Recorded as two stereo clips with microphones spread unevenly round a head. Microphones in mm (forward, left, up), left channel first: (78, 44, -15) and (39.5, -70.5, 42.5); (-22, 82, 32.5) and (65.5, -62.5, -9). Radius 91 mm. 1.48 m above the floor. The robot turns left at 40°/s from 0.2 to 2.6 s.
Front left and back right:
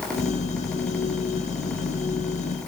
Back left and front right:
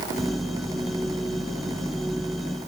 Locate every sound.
Only background noise.